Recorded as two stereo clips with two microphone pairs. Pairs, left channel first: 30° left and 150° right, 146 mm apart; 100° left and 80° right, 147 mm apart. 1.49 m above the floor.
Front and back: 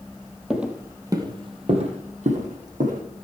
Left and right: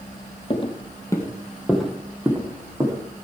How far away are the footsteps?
About 1.9 m.